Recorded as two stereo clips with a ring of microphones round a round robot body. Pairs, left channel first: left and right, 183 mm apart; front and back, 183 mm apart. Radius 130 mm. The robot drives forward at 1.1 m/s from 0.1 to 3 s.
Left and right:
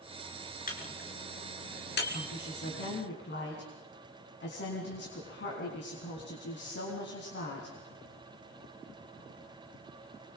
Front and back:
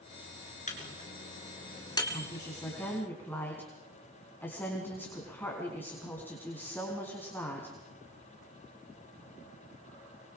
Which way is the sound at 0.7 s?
50° left.